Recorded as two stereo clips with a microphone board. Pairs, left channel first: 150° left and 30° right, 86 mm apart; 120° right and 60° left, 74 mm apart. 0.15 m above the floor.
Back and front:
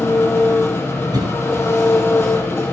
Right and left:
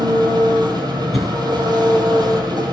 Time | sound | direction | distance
0.0 | an engine running | 85° left | 3 m
1.1 | a cough | 25° right | 2 m